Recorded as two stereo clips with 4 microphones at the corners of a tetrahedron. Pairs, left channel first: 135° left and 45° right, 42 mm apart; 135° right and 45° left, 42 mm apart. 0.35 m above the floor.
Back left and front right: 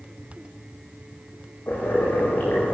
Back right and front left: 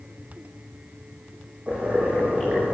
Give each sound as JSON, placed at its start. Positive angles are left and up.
{"t": 1.7, "sound": "boiling", "azimuth_deg": 95, "distance_m": 9.5}